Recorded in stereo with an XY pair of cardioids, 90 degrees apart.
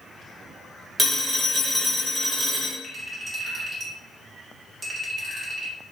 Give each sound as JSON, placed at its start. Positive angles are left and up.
{"t": 1.0, "sound": "a phone ringing", "azimuth_deg": -20, "distance_m": 1.3}
{"t": 2.8, "sound": "a clink", "azimuth_deg": -30, "distance_m": 1.8}